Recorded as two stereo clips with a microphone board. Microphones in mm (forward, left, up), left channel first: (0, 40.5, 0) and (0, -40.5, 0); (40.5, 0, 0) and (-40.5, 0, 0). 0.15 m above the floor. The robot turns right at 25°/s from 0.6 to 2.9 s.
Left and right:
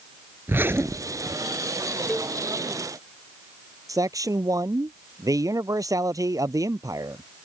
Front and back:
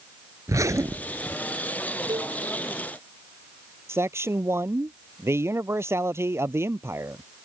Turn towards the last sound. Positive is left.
turn(degrees=-130)